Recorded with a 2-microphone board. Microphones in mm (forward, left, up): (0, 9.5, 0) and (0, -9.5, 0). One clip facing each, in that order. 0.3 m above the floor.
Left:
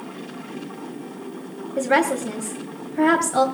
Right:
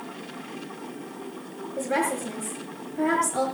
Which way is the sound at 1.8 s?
45° left (ahead or behind).